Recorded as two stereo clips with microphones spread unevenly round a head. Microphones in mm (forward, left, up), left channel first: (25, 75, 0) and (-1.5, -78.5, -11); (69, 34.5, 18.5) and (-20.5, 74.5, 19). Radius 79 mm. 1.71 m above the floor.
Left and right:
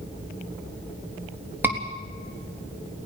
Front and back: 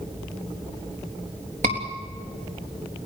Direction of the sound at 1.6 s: Straight behind.